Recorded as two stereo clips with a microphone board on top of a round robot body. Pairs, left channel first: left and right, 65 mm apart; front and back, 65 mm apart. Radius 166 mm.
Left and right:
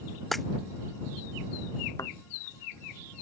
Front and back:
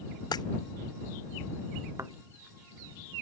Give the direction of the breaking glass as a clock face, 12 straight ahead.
12 o'clock.